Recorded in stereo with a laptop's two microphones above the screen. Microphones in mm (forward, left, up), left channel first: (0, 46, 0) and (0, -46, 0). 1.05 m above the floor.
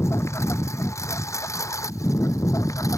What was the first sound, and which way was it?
A lawn mower, 30° left (ahead or behind).